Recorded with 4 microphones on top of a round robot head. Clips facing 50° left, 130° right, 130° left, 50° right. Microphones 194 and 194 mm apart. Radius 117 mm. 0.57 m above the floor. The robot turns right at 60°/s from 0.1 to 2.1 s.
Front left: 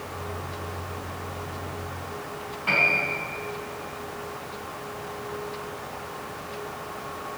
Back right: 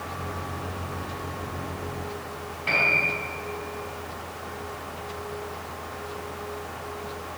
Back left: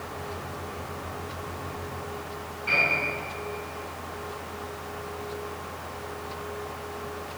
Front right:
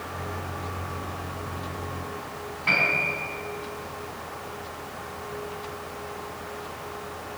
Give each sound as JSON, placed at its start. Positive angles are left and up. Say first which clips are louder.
{"t": 2.7, "sound": "a piano", "louder": "even, even", "azimuth_deg": -60, "distance_m": 5.0}